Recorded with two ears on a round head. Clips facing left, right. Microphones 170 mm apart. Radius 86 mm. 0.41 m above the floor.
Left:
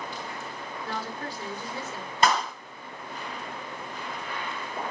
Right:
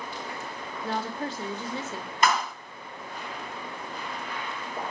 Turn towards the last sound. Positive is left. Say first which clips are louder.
# left 1 dB
turn(degrees=30)  # may be behind; listen again after turning